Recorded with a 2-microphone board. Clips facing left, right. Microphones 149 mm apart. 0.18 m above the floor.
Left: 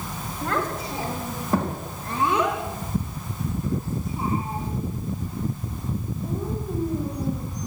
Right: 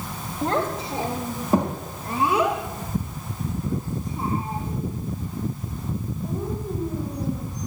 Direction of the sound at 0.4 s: 30° right (ahead or behind).